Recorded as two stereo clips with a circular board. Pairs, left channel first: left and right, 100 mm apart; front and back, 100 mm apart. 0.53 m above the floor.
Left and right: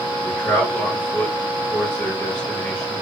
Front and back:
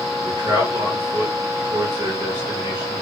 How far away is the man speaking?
About 1.6 m.